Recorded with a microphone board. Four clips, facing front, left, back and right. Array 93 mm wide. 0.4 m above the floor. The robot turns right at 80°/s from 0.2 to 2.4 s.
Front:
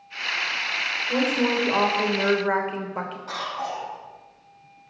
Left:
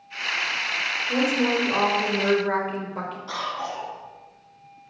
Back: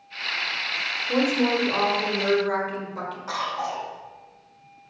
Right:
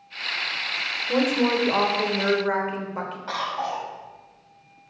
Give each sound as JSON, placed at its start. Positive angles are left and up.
{"t": 1.1, "sound": "a woman speaking", "azimuth_deg": -120, "distance_m": 1.2}
{"t": 3.3, "sound": "a cough", "azimuth_deg": -110, "distance_m": 2.0}